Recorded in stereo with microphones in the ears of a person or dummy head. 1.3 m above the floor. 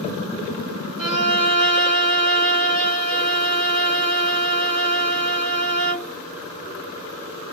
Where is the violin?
60° right (ahead or behind), 1.7 m.